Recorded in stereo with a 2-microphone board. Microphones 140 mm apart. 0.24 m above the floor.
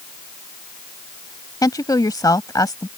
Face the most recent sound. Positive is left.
turn(degrees=25)  # may be behind; listen again after turning